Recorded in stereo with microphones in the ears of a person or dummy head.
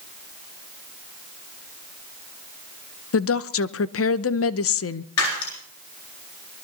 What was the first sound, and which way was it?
A woman speaking, 60° left (ahead or behind).